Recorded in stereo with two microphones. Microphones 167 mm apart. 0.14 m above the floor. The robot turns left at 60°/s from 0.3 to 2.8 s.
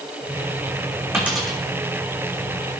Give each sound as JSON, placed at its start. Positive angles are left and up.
{"t": 1.1, "sound": "a dropped coin", "side_deg": -15, "distance_m": 2.5}